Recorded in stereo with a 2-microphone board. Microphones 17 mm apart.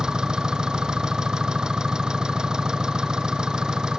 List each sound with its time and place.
0.0 s an engine running: 55° right (ahead or behind)